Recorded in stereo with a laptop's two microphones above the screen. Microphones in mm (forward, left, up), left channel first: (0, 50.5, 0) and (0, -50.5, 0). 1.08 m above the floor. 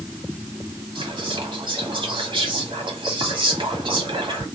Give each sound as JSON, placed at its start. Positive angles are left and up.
{"t": 0.9, "sound": "whispering", "side_deg": -55, "distance_m": 1.8}